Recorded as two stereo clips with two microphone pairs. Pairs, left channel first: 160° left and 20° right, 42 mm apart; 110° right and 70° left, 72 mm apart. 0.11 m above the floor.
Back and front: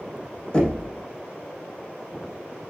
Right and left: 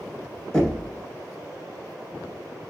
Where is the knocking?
175° right, 1.4 m.